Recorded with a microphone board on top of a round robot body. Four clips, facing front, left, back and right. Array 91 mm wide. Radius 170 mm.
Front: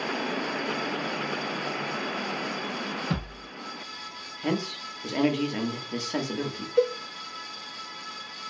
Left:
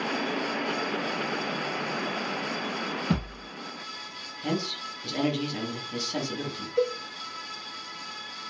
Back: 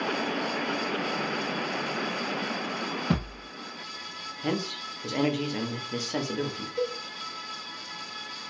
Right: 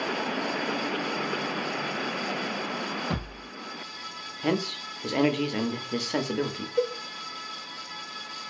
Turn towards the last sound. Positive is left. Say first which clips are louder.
# left 1 dB, front 7 dB
turn(degrees=0)